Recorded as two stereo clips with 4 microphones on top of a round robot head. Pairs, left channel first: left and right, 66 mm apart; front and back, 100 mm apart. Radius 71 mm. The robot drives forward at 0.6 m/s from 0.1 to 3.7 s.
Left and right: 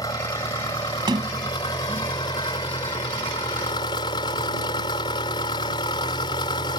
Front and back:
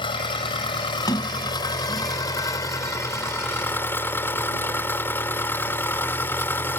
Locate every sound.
0.0 s an engine running: 35° left; by 6.8 s 65° left
1.1 s a sliding door: 60° right; by 2.1 s 65° right